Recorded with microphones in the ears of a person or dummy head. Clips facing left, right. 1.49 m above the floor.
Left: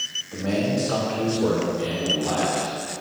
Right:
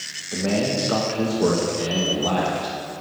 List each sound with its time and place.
0.3 s a man speaking: 30° right (ahead or behind), 1.4 m; by 2.8 s 75° right (ahead or behind), 1.4 m